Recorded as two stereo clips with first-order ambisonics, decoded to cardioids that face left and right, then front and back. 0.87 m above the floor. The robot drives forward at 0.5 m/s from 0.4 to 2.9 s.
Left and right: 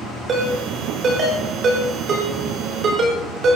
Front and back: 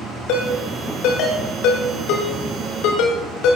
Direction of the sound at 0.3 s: 25° right.